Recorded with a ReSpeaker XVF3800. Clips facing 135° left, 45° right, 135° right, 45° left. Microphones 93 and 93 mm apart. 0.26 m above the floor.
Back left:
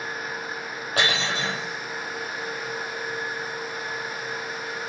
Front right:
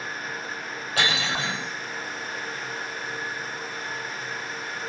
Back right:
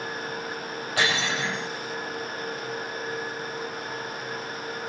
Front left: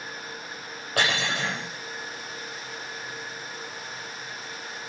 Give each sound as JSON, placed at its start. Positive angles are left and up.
{"t": 1.0, "sound": "cutlery clinking", "azimuth_deg": 85, "distance_m": 5.5}